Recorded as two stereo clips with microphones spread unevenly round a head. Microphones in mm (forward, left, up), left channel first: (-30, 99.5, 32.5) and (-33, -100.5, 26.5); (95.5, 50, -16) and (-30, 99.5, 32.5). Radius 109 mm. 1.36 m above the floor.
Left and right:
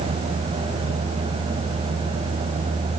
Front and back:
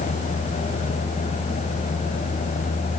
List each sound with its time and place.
Only background noise.